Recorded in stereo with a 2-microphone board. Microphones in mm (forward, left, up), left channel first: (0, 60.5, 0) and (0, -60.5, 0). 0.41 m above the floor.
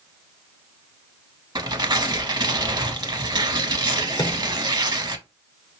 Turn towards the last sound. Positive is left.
turn(degrees=40)  # may be behind; listen again after turning